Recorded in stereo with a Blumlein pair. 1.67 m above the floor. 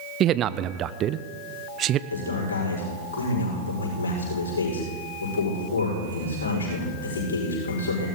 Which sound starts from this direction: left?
A man speaking, at 2.1 s.